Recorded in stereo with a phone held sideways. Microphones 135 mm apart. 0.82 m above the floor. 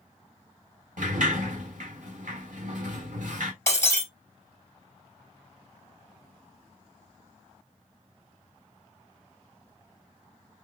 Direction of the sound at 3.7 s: 20° left (ahead or behind).